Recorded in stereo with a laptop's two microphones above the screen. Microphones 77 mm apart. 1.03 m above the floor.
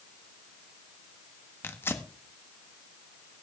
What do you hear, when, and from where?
1.6 s tearing paper: 30° left (ahead or behind), 1.2 m